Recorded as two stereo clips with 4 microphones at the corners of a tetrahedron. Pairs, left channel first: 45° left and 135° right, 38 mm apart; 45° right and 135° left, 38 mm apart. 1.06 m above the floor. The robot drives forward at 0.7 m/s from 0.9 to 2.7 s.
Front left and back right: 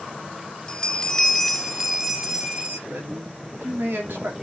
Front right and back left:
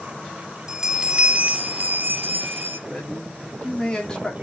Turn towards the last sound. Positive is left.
turn(degrees=-115)